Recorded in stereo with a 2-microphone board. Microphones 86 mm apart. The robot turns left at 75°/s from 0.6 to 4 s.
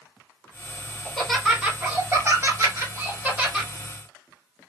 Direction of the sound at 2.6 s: 45° right (ahead or behind).